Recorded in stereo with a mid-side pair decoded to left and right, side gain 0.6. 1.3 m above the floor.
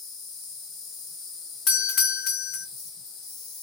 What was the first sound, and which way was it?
An insect, 60° left.